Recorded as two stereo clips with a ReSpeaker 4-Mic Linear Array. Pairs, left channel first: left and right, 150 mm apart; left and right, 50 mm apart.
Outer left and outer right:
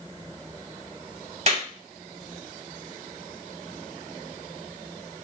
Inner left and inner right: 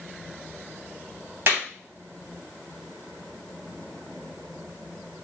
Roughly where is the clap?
Right.